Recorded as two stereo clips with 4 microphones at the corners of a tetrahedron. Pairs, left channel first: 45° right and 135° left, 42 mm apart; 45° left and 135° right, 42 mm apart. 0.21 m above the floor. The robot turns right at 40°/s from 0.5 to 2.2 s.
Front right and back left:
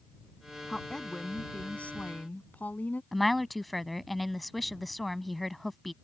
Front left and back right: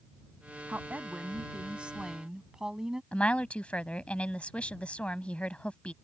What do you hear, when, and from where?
0.7 s a woman speaking: 130° right; by 3.0 s 70° right
3.1 s a woman speaking: 40° left